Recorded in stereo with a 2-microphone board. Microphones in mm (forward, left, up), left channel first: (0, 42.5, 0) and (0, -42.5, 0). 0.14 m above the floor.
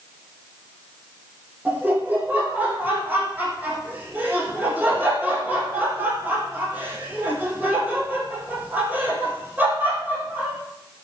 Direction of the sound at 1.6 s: 15° right (ahead or behind).